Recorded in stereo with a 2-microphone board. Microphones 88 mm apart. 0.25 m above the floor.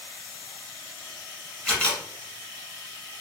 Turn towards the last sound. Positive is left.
turn(degrees=10)  # may be behind; listen again after turning